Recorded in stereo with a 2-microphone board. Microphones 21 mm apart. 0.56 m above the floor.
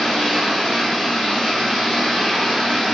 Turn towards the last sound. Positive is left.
turn(degrees=45)  # may be behind; listen again after turning